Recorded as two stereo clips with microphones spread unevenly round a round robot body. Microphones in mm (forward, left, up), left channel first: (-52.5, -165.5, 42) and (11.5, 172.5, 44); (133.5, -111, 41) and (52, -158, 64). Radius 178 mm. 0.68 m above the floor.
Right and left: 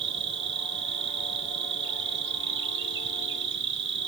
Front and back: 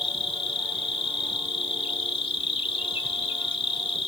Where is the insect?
20° left, 0.8 m.